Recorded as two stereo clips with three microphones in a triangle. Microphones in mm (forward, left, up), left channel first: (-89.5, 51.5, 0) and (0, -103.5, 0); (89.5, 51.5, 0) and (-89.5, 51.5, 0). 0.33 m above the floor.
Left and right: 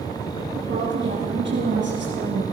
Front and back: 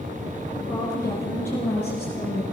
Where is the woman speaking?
80° right, 4.5 m.